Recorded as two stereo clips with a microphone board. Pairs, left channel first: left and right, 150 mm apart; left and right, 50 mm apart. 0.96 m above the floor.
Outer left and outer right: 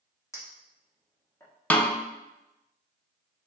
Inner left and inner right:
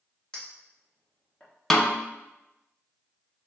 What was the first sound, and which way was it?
A clink, 20° left (ahead or behind).